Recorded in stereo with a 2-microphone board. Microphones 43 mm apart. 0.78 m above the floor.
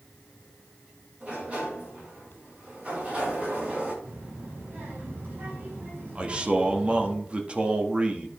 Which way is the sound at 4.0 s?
45° right (ahead or behind).